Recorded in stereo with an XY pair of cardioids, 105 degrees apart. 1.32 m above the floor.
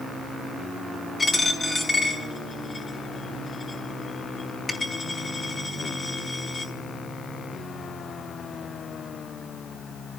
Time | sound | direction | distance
1.2 | a dropped coin | 35° left | 5.5 m